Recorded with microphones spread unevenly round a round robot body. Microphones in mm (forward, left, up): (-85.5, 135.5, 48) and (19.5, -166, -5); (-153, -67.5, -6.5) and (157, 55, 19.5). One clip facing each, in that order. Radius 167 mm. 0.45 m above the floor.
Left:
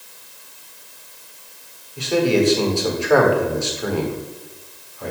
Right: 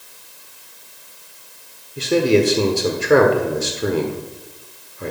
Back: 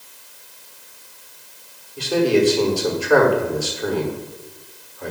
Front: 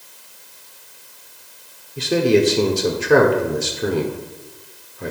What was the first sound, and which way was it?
A man speaking, 35° right.